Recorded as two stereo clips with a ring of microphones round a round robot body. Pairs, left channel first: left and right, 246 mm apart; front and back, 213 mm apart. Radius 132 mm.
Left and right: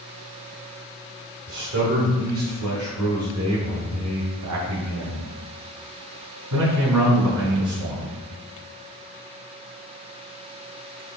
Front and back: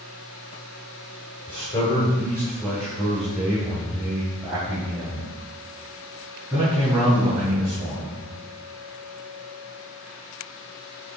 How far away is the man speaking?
About 1.6 m.